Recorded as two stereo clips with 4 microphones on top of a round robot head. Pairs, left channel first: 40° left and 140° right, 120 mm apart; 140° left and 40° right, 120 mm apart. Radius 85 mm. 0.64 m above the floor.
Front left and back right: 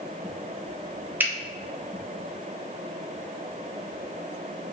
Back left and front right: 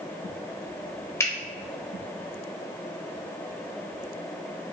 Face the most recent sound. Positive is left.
turn(degrees=170)